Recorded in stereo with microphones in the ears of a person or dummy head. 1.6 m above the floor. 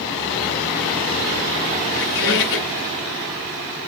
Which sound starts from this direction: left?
A squeak, at 1.9 s.